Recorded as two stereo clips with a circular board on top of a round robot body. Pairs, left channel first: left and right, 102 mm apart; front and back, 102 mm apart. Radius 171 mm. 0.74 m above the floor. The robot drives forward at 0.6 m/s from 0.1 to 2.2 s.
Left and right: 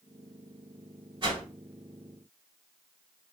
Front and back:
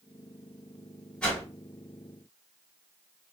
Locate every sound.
1.2 s a whoosh: 80° right, 1.8 m; by 1.4 s 85° right, 1.7 m